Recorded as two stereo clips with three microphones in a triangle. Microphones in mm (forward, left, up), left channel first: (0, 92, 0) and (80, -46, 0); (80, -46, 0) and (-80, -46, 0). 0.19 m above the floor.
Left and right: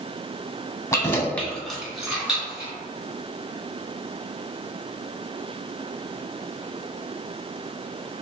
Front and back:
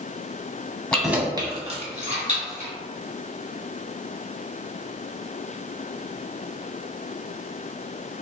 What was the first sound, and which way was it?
Keys jangling, 75° left.